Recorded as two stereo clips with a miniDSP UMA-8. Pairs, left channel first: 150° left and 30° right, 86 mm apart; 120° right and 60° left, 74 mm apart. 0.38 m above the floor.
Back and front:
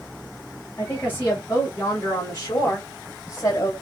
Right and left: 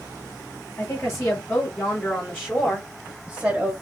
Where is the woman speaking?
150° right, 1.9 m; by 3.7 s 120° left, 1.4 m.